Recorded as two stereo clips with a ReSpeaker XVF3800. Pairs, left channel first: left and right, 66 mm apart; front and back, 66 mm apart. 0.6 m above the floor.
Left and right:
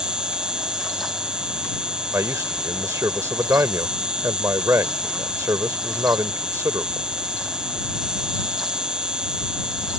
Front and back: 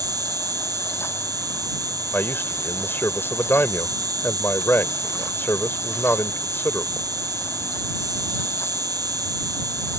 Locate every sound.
0.0 s an insect: 170° right
2.1 s a man speaking: 50° right